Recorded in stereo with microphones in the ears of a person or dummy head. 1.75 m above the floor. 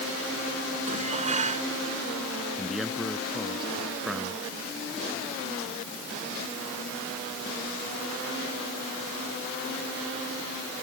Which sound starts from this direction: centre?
A man speaking, at 2.6 s.